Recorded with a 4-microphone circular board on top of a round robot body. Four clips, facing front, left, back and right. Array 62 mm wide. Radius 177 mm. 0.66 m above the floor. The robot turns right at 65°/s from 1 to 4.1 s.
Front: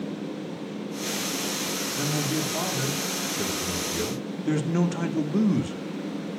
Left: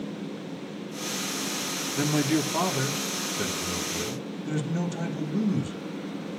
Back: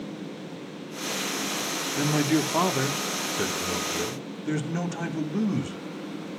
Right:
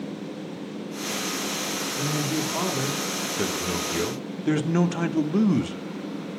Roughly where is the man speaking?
Behind left.